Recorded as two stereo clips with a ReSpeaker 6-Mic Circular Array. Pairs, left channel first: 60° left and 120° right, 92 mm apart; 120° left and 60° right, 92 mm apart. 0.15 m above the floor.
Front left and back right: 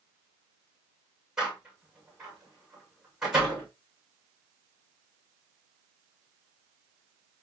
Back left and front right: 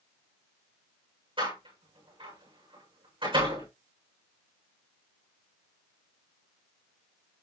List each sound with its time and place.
1.4 s a door slam: 40° right, 7.5 m